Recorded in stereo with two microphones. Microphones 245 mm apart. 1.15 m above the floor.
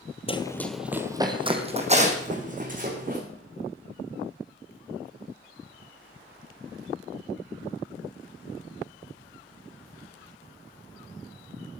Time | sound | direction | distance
0.3 | running footsteps | 25° left (ahead or behind) | 1.3 m